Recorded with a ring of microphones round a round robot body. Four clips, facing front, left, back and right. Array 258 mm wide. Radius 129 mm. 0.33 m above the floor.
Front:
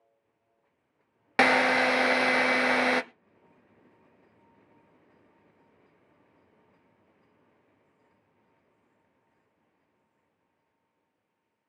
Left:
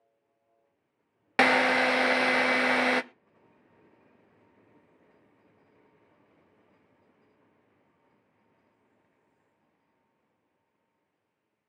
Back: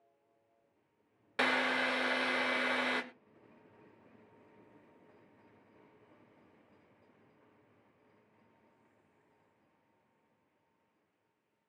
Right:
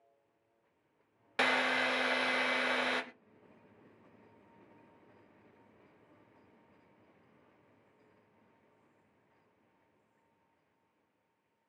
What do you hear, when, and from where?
1.4 s a drill: 40° left, 0.7 m